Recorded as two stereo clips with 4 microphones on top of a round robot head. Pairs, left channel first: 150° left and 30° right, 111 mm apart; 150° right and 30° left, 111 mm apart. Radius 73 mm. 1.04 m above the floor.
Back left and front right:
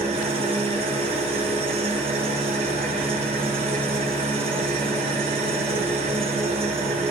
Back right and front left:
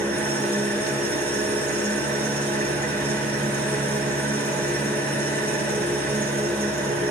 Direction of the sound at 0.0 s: 70° right.